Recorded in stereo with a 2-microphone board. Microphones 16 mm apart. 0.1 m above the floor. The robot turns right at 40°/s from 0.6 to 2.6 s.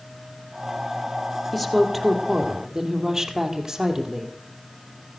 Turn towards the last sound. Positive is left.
turn(degrees=-160)